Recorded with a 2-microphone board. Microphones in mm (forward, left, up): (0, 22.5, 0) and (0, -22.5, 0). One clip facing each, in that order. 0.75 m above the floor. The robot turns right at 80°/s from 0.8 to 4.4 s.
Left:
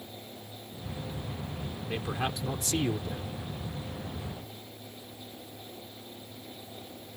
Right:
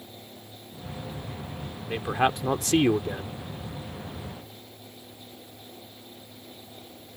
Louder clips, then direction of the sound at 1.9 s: Right 9 dB; 160° right.